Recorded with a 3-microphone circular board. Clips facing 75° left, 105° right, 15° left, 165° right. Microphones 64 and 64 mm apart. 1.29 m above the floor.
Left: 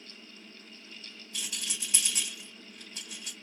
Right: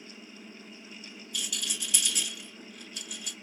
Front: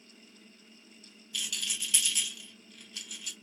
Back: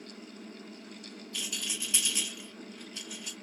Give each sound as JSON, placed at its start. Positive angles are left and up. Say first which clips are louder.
{"t": 1.3, "sound": "a rattle", "louder": "right 3 dB, front 1 dB", "azimuth_deg": 130, "distance_m": 3.0}